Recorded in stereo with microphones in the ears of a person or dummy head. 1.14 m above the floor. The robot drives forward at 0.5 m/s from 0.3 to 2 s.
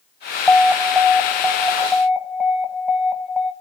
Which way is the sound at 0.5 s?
5° left (ahead or behind).